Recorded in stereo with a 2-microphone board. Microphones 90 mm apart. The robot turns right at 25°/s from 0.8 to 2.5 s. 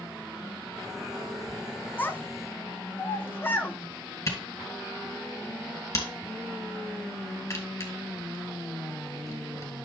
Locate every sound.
2.0 s a child speaking: 20° left (ahead or behind), 0.6 m
4.3 s a camera shutter: 35° left (ahead or behind), 2.5 m